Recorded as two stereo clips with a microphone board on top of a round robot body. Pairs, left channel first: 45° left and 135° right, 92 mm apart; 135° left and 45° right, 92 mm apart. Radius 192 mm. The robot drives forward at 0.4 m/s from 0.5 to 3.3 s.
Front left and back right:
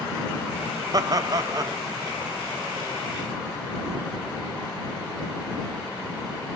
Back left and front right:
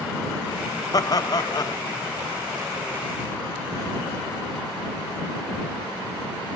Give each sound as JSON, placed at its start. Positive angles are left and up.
{"t": 0.9, "sound": "laughter", "azimuth_deg": 180, "distance_m": 0.6}